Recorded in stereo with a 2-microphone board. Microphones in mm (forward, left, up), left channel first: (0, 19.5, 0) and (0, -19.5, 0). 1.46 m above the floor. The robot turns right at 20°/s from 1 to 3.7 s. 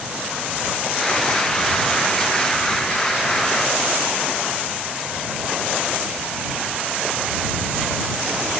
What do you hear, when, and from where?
Only background noise.